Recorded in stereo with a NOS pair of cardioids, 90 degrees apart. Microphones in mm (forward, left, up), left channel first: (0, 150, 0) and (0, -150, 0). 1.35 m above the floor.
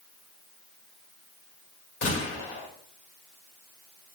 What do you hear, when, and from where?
2.0 s a gunshot: 40° left, 1.9 m